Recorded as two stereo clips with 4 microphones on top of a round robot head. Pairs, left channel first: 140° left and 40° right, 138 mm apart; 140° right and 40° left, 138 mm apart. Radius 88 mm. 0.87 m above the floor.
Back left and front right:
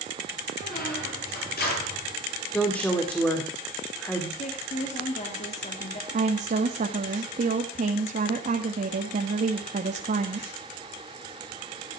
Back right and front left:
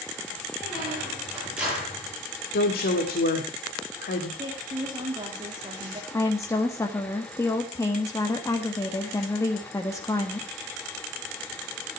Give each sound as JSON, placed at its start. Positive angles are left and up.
{"t": 0.6, "sound": "a squeak", "azimuth_deg": 125, "distance_m": 8.5}
{"t": 2.5, "sound": "a woman speaking", "azimuth_deg": -140, "distance_m": 2.0}
{"t": 4.4, "sound": "a woman speaking", "azimuth_deg": 100, "distance_m": 2.5}
{"t": 6.1, "sound": "a woman speaking", "azimuth_deg": -70, "distance_m": 1.6}